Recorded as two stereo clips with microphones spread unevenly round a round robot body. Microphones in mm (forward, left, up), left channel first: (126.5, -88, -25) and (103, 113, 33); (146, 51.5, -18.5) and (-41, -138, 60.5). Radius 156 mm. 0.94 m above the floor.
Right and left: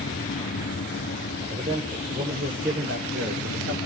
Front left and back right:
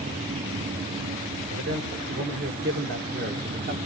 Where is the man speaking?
170° left, 4 m; by 3.8 s 155° left, 3 m.